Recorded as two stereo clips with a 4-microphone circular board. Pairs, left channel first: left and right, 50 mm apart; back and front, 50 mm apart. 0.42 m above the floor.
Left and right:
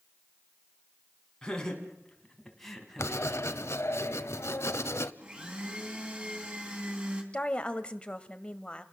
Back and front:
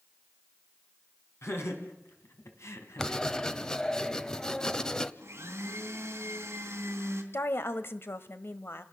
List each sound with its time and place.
1.4 s laughter: 160° left, 5 m; by 3.2 s 175° left, 3.5 m
3.0 s writing: 105° left, 0.9 m
5.2 s a blender: 30° right, 3 m
7.3 s a woman speaking: 155° left, 1.6 m